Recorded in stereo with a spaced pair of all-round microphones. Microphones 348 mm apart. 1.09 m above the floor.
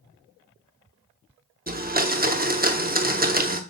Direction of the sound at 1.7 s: 25° right (ahead or behind).